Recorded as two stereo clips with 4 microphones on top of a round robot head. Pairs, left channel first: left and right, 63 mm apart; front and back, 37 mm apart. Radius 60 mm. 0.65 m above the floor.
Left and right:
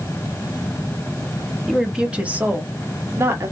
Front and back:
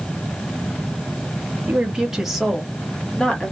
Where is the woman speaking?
175° right, 0.9 m; by 3.5 s 60° right, 1.2 m.